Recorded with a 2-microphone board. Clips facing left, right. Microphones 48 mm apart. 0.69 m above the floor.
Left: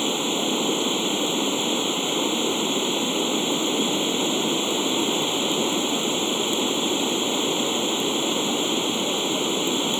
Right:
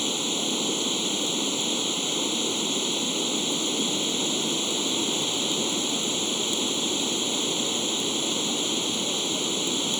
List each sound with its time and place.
0.0 s running water: 20° left (ahead or behind)